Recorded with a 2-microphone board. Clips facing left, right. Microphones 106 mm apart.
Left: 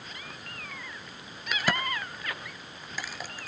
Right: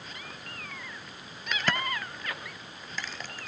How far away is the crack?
About 1.5 m.